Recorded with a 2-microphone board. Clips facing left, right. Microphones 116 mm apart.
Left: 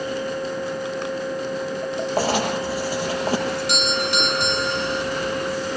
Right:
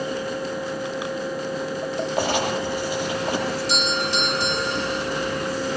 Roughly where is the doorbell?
Left.